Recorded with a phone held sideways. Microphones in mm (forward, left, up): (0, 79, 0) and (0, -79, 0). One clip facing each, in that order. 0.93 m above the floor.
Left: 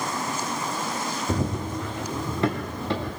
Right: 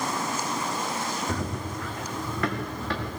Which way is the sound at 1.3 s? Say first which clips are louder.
Left 4 dB; 20° left (ahead or behind).